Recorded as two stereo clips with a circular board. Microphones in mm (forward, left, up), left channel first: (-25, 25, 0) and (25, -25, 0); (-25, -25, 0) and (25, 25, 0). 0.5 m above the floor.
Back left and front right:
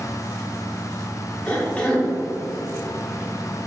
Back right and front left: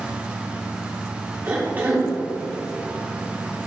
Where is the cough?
80° left, 0.8 m.